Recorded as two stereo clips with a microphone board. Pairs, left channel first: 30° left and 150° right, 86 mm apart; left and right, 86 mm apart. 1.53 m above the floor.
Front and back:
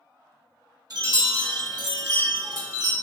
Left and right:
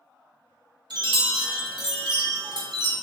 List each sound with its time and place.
0.9 s a chime: 115° right, 0.8 m